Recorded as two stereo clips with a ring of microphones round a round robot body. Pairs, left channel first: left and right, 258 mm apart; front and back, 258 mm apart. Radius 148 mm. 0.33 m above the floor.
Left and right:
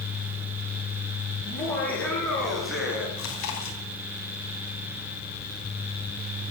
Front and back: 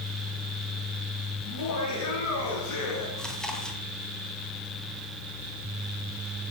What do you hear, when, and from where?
1.4 s laughter: 10° left, 7 m; by 3.1 s 5° right, 5 m
3.2 s chewing: 90° left, 2.5 m